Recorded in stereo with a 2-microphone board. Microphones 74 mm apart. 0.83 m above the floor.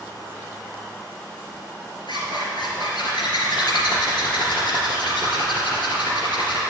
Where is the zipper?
80° left, 3 m.